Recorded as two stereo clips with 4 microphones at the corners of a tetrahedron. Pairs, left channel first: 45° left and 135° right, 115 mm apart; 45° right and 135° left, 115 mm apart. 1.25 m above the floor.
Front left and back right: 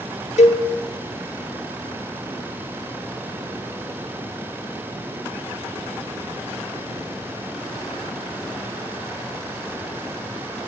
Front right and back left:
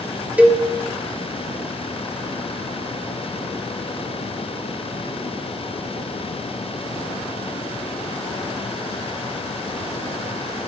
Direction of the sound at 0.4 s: 60° left.